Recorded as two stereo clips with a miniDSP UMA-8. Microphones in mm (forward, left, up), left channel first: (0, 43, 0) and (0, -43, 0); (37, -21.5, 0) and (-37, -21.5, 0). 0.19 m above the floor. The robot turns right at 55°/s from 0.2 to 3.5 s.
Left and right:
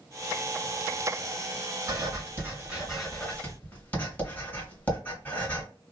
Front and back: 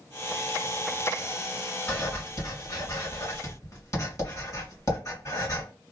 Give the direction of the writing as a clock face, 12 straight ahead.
2 o'clock.